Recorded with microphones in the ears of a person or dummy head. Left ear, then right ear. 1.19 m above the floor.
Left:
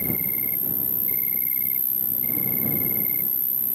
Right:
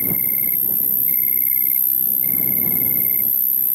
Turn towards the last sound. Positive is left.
turn(degrees=-5)  # may be behind; listen again after turning